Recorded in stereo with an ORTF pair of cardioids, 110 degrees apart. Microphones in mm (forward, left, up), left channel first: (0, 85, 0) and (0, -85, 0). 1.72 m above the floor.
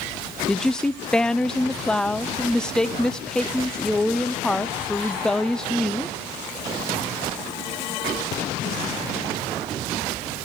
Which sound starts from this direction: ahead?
A woman speaking, at 0.5 s.